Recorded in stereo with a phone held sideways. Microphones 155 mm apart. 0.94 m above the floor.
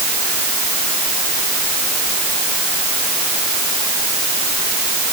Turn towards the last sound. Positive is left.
No sound to turn to.